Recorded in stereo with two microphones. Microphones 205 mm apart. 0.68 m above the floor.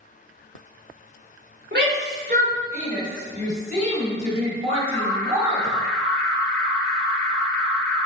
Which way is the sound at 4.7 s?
Centre (ahead or behind).